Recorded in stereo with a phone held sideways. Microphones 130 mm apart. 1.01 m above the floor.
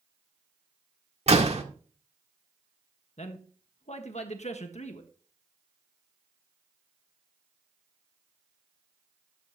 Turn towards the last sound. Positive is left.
turn(degrees=60)  # may be behind; listen again after turning